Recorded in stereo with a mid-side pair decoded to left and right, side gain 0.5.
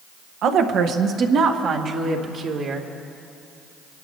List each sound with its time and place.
0.4 s a woman speaking: 70° right, 1.3 m; by 2.9 s 50° right, 2.5 m